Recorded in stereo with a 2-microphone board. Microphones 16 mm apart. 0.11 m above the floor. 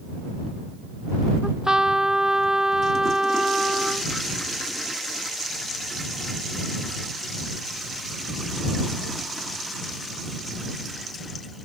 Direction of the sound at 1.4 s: 50° right (ahead or behind).